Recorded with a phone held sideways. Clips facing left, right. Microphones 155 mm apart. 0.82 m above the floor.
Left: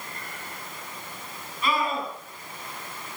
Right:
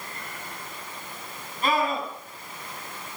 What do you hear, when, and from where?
1.6 s a scream: 45° right (ahead or behind), 7.5 m